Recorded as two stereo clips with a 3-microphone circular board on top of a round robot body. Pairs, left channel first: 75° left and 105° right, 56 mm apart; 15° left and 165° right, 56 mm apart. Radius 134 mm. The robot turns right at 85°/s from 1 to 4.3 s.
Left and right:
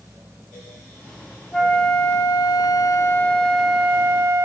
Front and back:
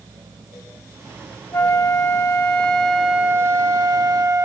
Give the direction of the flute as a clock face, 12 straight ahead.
12 o'clock.